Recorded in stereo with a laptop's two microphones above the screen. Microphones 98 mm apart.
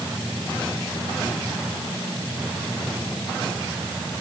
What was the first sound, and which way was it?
Only background noise.